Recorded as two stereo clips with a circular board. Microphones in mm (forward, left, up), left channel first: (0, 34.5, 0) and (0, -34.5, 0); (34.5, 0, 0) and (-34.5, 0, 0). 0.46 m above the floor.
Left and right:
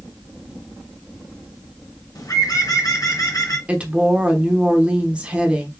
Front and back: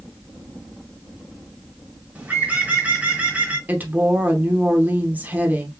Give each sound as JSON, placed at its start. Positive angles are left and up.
{"t": 2.1, "sound": "a bird", "azimuth_deg": 115, "distance_m": 1.5}
{"t": 3.7, "sound": "a woman speaking", "azimuth_deg": -145, "distance_m": 0.9}